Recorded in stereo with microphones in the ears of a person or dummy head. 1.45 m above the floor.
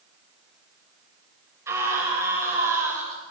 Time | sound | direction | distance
1.7 | a scream | 10° right (ahead or behind) | 7.5 m